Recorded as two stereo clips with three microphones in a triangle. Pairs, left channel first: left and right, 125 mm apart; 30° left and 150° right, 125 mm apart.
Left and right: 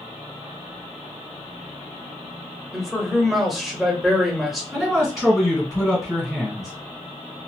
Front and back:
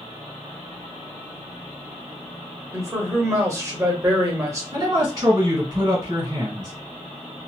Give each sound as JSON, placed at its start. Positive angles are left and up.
{"t": 2.7, "sound": "a man speaking", "azimuth_deg": 180, "distance_m": 0.9}
{"t": 4.7, "sound": "a man speaking", "azimuth_deg": 180, "distance_m": 1.7}